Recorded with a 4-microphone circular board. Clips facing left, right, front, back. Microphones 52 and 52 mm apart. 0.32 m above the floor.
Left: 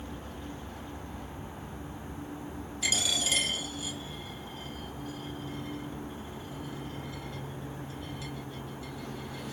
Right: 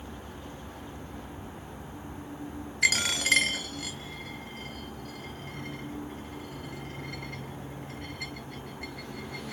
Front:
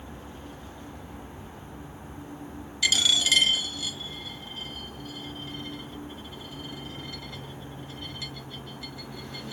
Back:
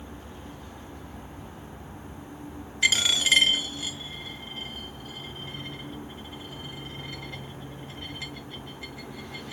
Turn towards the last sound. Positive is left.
turn(degrees=-120)